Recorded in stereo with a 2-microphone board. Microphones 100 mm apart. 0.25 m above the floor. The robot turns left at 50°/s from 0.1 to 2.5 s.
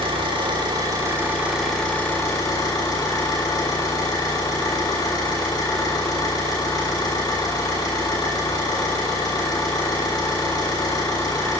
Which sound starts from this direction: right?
An engine running, at 0.0 s.